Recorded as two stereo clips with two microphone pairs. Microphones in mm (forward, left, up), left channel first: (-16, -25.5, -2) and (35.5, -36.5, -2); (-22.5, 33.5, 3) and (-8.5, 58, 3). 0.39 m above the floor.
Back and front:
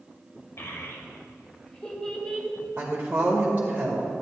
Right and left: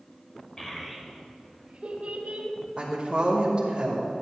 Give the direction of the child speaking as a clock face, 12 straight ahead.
6 o'clock.